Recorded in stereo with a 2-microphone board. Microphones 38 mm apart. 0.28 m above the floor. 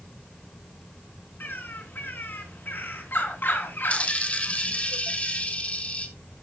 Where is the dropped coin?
35° left (ahead or behind), 1.7 m.